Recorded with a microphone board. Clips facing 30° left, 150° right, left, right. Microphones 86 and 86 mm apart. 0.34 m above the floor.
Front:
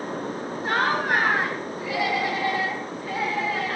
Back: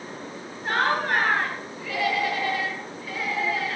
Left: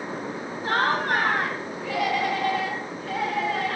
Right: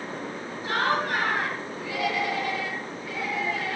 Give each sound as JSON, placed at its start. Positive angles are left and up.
{"t": 0.6, "sound": "laughter", "azimuth_deg": 120, "distance_m": 2.5}